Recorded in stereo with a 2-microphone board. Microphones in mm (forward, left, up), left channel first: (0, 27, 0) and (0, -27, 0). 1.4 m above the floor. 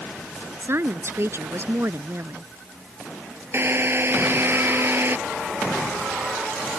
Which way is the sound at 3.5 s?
45° right (ahead or behind).